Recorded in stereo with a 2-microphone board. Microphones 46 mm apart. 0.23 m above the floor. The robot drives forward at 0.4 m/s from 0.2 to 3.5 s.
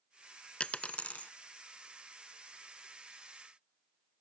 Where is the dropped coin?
25° left (ahead or behind); by 1.3 s 35° left (ahead or behind).